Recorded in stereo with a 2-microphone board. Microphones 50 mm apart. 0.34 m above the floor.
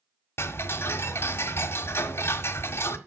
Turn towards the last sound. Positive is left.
turn(degrees=55)  # may be behind; listen again after turning